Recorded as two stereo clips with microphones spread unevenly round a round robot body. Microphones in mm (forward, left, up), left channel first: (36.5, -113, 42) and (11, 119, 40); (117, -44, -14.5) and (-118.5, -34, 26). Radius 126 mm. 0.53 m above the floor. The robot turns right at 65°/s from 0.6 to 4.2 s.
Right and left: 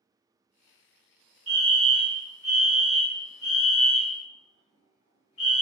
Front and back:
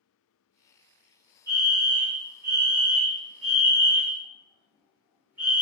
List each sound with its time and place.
1.5 s a fire alarm: 90° left, 1.7 m; by 5.6 s 90° right, 1.7 m